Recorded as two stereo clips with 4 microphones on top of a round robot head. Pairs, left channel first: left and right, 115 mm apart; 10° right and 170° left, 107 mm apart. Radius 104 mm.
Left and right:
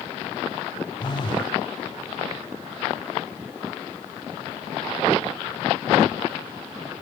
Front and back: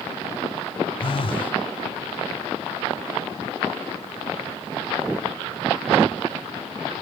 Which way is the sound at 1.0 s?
30° left.